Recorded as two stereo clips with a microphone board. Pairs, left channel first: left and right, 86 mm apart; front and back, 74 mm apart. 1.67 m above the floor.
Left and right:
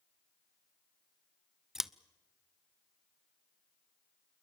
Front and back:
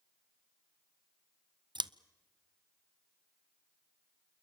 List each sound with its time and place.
1.8 s scissors: 175° right, 0.5 m